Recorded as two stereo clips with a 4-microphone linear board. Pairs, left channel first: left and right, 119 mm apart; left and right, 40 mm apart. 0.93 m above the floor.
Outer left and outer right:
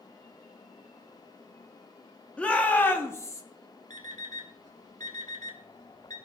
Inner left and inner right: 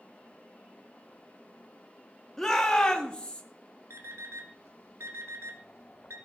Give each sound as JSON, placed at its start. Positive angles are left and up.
{"t": 2.4, "sound": "a shout", "side_deg": 10, "distance_m": 1.6}
{"t": 3.9, "sound": "an alarm clock", "side_deg": -80, "distance_m": 1.6}